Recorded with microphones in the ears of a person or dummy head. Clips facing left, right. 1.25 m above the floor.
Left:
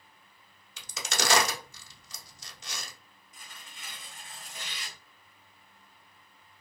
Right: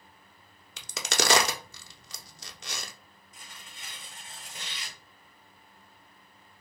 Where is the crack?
50° right (ahead or behind), 0.6 m.